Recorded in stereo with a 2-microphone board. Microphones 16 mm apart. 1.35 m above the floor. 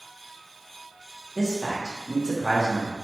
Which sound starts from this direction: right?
A man speaking, at 1.4 s.